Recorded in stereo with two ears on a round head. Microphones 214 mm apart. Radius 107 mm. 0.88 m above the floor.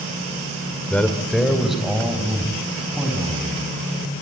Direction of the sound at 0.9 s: 5° left (ahead or behind).